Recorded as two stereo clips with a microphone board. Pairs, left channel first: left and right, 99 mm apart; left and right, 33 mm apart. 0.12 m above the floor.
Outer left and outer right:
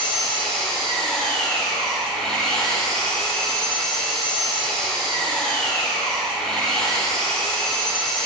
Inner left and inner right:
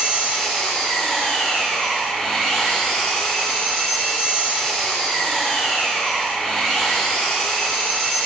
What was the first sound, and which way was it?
An engine running, 10° left (ahead or behind).